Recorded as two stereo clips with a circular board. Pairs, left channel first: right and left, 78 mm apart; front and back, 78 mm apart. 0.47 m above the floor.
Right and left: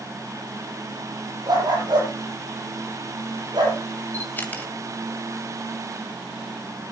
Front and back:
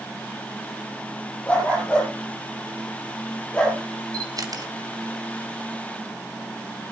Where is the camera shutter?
155° right, 2 m.